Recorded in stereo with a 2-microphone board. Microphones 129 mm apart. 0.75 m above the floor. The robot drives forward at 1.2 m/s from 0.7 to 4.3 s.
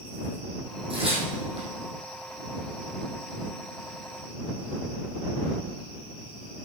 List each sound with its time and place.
0.9 s tearing paper: 40° right (ahead or behind), 5.5 m; by 1.7 s 50° right (ahead or behind), 5 m